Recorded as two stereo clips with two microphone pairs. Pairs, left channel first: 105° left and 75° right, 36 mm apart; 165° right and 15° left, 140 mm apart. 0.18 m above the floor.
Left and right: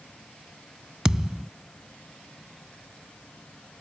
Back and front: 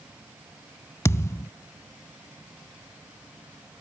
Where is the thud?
125° right.